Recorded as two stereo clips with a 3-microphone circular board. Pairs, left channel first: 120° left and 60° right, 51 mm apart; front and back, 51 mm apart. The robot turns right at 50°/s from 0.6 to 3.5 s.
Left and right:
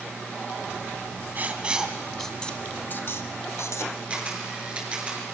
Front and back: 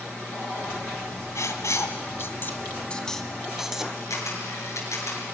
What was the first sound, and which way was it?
Writing, 10° right.